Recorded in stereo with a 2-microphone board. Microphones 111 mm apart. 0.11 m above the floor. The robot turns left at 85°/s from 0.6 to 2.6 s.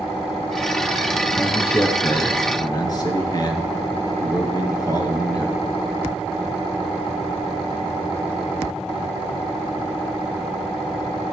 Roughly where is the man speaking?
Behind.